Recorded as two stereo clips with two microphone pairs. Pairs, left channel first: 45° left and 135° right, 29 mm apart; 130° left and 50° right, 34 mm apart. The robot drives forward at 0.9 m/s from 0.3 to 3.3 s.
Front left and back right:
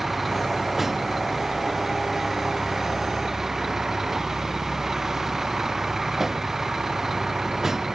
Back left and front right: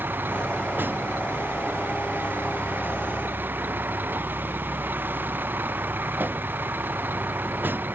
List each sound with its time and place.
0.0 s a vehicle: 55° right; by 7.9 s 65° right